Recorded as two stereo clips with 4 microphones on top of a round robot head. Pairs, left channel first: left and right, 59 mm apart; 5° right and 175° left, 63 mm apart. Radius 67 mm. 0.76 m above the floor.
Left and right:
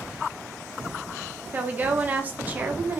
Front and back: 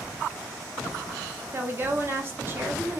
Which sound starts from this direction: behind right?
A woman speaking, at 1.5 s.